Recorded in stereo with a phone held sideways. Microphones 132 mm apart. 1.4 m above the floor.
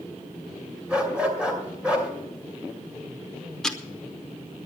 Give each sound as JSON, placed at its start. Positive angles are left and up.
{"t": 0.9, "sound": "a dog barking", "side_deg": -10, "distance_m": 2.5}
{"t": 3.6, "sound": "ticking", "side_deg": 0, "distance_m": 0.9}